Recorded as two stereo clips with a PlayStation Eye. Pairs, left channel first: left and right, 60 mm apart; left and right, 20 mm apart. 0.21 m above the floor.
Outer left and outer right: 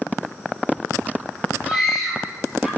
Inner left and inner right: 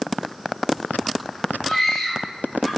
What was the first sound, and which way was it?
A scream, 5° left (ahead or behind).